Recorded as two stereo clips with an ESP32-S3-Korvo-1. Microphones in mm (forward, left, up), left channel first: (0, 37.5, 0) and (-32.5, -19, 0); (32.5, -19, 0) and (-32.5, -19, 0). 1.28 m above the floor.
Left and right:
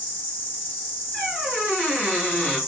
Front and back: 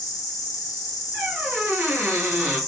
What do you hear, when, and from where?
0.0 s an insect: 5° left, 0.8 m
1.1 s a squeak: 125° left, 1.4 m